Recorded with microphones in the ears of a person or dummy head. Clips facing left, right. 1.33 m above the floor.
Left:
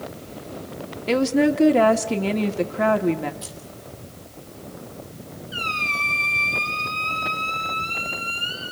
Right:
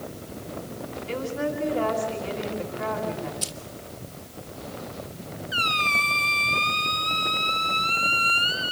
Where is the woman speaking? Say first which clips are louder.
Left 11 dB; 85° left, 1.9 m.